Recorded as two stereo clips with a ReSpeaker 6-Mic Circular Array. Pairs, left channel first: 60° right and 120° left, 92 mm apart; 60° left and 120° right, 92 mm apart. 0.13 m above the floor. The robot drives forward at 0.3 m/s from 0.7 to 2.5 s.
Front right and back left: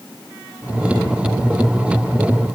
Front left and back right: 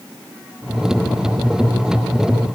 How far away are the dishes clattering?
No dishes clattering in this recording.